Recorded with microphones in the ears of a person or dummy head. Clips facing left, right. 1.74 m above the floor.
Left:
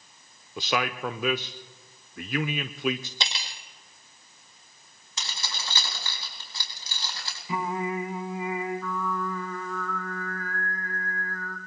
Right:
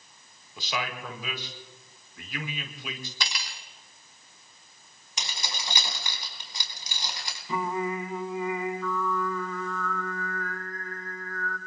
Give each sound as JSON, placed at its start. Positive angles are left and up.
{"t": 0.6, "sound": "a man speaking", "side_deg": 55, "distance_m": 0.8}
{"t": 3.2, "sound": "cutlery clinking", "side_deg": 25, "distance_m": 1.8}
{"t": 5.2, "sound": "keys jangling", "side_deg": -25, "distance_m": 4.0}
{"t": 7.5, "sound": "singing", "side_deg": 15, "distance_m": 2.0}